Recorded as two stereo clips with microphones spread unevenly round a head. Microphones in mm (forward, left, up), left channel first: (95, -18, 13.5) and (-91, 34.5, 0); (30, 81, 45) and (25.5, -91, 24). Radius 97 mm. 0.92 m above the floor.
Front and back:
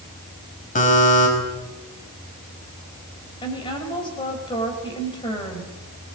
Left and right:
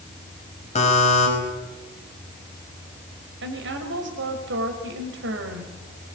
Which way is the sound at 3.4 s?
85° right.